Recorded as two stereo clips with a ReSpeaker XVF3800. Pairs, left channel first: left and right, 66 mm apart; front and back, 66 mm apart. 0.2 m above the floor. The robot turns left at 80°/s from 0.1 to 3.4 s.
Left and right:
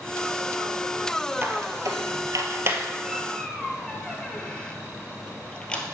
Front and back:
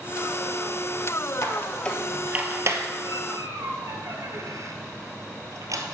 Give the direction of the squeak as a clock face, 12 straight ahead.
1 o'clock.